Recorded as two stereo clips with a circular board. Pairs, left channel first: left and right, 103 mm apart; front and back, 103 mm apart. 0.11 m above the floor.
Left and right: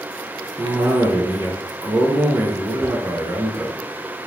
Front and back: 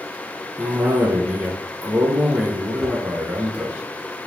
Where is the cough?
125° right, 1.6 m.